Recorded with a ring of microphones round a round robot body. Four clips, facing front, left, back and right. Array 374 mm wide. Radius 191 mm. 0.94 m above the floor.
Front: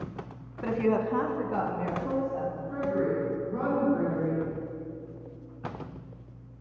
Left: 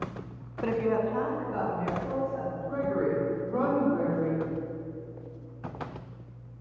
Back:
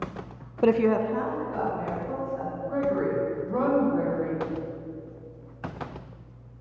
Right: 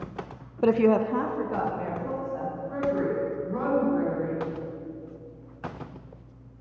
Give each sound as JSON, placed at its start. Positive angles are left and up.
{"t": 0.6, "sound": "a woman speaking", "azimuth_deg": -150, "distance_m": 0.6}
{"t": 2.7, "sound": "a woman speaking", "azimuth_deg": 155, "distance_m": 3.5}